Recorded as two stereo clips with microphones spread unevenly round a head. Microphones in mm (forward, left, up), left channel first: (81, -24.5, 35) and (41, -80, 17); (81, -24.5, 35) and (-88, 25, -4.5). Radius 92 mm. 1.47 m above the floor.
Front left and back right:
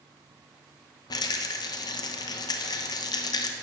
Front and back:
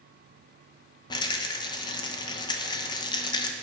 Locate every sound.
1.1 s a rattle: 45° left, 1.1 m